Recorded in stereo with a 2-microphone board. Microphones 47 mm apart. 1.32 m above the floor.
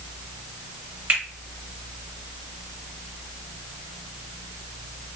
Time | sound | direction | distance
1.1 | a finger snap | 45° right (ahead or behind) | 1.6 m